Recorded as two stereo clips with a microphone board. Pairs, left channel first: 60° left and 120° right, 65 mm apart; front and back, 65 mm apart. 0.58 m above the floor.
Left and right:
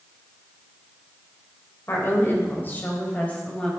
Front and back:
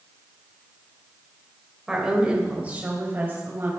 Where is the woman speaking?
100° left, 3 m; by 3.7 s 130° left, 4 m.